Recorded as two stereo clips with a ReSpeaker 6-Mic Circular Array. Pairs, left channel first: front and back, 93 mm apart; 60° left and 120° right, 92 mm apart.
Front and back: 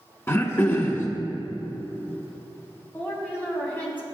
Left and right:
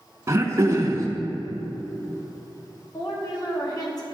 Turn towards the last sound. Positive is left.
turn(degrees=60)